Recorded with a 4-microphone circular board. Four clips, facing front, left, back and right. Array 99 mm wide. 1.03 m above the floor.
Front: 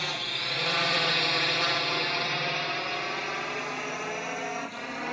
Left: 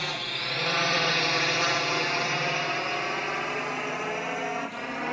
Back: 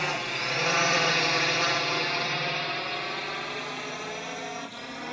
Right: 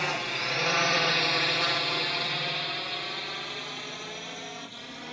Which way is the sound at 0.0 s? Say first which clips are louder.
Right 3 dB, back 5 dB; 140° right.